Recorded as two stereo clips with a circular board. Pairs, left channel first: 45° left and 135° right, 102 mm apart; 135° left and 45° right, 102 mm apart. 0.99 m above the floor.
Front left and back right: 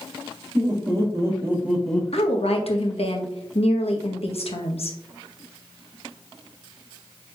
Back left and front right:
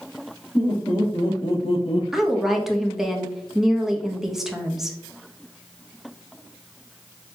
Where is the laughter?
Straight behind, 2 m; by 2.0 s 115° left, 0.6 m.